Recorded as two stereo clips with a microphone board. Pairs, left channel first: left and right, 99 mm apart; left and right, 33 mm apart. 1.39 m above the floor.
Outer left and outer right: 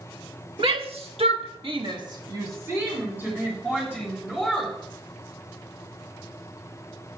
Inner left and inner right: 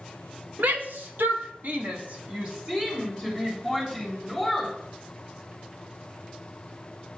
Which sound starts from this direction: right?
A shout, at 0.6 s.